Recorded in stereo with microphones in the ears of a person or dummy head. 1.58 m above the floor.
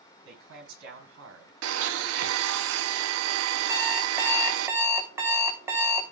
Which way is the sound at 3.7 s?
15° right (ahead or behind).